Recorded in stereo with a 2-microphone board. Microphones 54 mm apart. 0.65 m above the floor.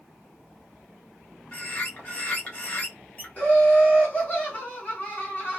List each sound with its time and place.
1.5 s a bird: 30° left (ahead or behind), 0.9 m
3.4 s laughter: 30° left (ahead or behind), 1.1 m